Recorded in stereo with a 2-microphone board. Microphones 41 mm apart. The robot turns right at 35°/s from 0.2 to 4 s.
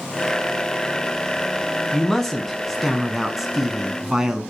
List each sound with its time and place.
1.9 s a man speaking: 10° left (ahead or behind), 1.0 m; by 4.4 s 10° right (ahead or behind), 1.0 m